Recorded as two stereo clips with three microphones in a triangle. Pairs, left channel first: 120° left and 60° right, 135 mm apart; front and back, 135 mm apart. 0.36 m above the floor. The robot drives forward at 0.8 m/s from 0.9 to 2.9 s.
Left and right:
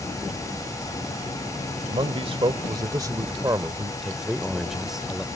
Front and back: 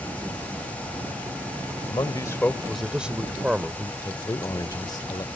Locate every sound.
1.9 s a man speaking: 40° right; by 3.9 s 100° right
4.0 s a man speaking: 25° left